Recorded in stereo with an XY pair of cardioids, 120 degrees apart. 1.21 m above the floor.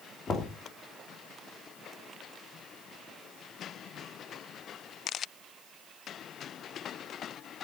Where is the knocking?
30° left, 3 m.